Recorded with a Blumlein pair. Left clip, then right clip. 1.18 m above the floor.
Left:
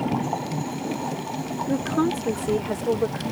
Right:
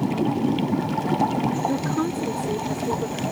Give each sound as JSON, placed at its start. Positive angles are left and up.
{"t": 1.7, "sound": "a woman speaking", "azimuth_deg": 5}